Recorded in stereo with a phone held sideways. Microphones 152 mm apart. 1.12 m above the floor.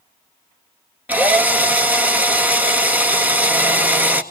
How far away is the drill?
About 1.5 m.